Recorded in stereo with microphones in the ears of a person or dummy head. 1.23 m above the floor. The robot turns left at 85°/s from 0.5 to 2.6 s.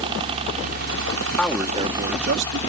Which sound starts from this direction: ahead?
A man speaking, at 1.4 s.